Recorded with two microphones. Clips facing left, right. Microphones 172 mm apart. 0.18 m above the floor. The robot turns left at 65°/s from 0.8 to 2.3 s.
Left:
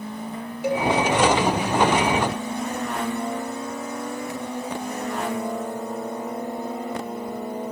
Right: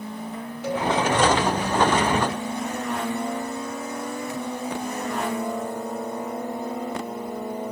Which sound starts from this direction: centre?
A cowbell, at 0.6 s.